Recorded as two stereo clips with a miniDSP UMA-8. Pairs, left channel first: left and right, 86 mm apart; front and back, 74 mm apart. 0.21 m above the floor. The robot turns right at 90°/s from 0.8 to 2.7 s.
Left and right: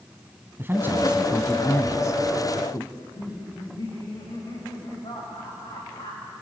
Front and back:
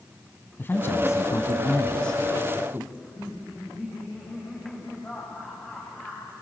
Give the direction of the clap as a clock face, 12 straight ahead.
I don't hear a clap.